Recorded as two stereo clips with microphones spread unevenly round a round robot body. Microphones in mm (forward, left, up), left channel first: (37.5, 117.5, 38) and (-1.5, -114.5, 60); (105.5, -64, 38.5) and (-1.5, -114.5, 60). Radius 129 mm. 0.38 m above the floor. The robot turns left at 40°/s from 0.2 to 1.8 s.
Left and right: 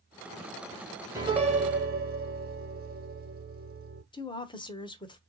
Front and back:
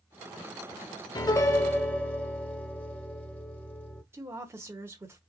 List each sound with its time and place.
1.1 s a piano: 20° right, 1.1 m; by 4.0 s 50° right, 1.1 m
4.1 s a woman speaking: 130° left, 1.0 m